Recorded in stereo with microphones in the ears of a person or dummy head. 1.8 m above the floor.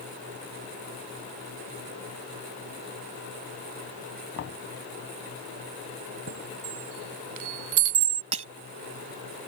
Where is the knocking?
60° left (ahead or behind).